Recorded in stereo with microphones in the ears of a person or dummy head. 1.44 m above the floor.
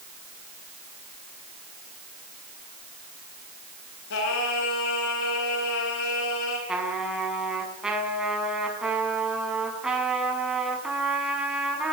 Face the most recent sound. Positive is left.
turn(degrees=-5)  # may be behind; listen again after turning